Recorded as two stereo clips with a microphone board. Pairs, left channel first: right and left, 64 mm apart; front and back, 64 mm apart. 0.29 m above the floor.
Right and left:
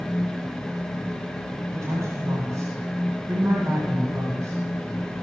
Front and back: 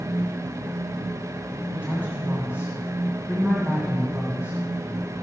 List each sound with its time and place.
1.7 s a woman speaking: 120° left, 2 m